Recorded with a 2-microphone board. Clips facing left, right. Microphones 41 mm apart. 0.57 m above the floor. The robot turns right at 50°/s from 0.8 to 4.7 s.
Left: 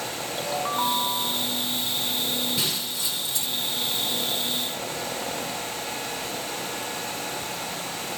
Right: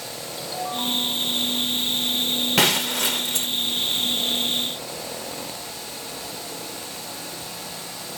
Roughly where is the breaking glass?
Right.